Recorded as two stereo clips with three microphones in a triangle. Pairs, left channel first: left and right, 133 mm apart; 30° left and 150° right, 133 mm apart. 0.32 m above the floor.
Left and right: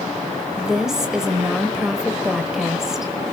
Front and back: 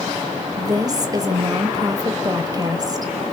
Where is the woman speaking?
175° right, 1.1 m.